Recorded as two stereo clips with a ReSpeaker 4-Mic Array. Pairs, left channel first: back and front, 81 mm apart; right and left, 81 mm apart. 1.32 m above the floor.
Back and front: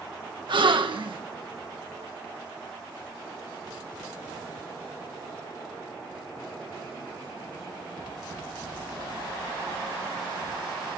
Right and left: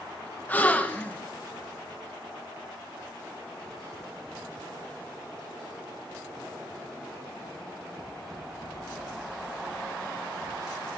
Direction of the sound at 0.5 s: 20° right.